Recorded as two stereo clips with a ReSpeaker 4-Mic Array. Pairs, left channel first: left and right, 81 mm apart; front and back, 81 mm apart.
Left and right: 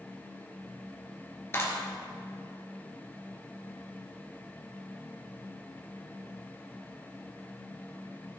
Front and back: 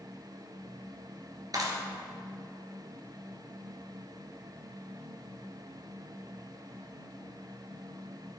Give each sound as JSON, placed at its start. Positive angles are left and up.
{"t": 1.5, "sound": "a clap", "azimuth_deg": 145, "distance_m": 2.5}